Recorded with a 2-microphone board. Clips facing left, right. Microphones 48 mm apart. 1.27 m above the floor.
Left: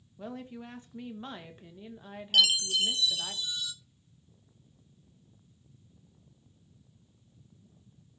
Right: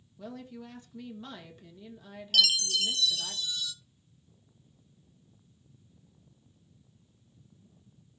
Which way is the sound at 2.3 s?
20° left (ahead or behind).